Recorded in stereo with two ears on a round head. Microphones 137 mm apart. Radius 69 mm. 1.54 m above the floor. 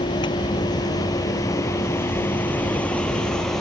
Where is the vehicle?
35° left (ahead or behind); by 3.6 s centre (ahead or behind).